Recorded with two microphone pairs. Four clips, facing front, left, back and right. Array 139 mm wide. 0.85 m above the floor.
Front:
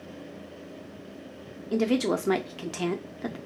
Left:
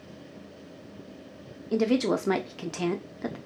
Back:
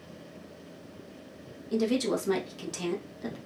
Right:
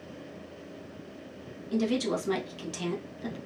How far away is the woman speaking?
About 0.7 m.